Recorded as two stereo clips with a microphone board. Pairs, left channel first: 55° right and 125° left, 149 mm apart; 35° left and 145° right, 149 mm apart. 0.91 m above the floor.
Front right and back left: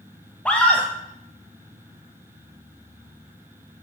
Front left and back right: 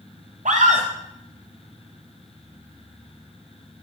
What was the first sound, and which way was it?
A scream, 135° right.